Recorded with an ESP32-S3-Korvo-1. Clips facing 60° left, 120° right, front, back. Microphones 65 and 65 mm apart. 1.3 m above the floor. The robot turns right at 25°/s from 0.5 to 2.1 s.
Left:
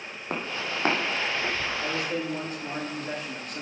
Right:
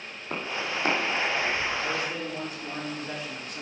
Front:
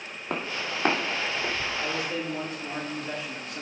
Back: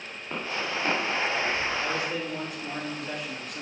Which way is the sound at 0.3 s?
20° left.